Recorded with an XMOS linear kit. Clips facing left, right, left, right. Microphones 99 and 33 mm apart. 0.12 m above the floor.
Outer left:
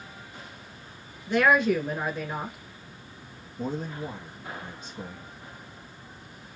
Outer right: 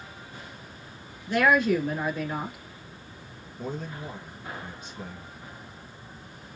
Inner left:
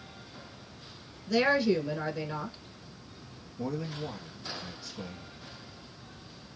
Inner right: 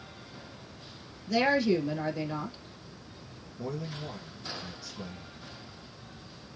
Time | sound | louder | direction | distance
1.3 | a woman speaking | even, even | 15° left (ahead or behind) | 1.2 m
3.6 | a man speaking | outer left 3 dB, inner left 2 dB | 45° left (ahead or behind) | 2 m